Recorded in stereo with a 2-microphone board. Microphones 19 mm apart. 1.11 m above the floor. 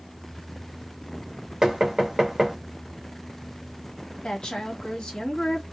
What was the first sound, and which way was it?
Knocking, 30° right (ahead or behind).